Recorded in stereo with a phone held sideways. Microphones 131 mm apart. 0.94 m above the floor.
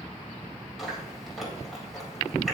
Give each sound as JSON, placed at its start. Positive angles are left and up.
{"t": 0.8, "sound": "chewing", "side_deg": 0, "distance_m": 3.0}